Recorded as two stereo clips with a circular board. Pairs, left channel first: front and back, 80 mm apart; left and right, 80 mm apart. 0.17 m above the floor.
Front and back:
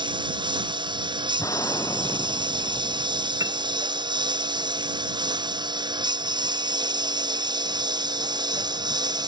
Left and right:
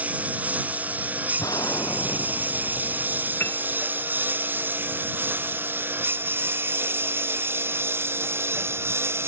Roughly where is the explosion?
Ahead left.